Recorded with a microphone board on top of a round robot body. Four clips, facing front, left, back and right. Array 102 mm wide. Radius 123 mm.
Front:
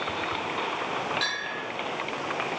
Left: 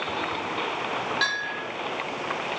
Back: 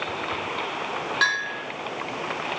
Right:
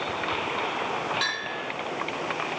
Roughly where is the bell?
Behind.